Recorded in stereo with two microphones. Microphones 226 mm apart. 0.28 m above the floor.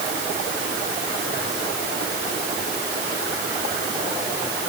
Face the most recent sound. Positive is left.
No sound to turn to.